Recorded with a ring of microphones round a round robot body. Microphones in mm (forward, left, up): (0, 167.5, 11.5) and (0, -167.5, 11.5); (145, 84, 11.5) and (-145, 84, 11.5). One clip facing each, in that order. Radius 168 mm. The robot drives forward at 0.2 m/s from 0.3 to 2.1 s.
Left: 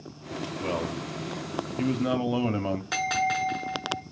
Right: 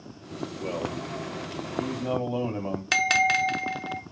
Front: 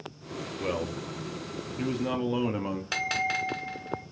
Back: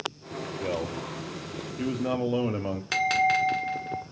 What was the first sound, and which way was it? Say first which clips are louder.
A man speaking: left 1 dB, even; 60° left.